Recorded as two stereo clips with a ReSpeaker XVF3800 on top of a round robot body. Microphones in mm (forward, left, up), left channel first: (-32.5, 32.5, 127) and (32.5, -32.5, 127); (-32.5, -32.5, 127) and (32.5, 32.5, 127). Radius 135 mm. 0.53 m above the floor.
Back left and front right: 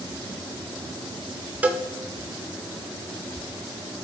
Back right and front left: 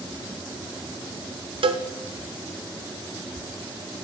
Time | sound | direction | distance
1.6 | a cowbell | 30° left | 0.8 m